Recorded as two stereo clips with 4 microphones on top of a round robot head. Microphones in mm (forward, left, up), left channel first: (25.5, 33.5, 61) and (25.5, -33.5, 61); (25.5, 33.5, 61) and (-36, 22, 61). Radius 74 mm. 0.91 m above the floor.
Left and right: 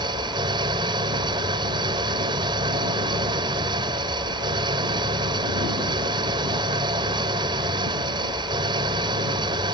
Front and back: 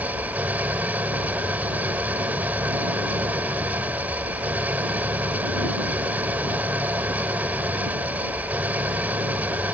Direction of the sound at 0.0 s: 100° right.